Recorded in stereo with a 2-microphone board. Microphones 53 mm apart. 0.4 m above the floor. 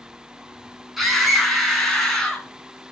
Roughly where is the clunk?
No clunk in this recording.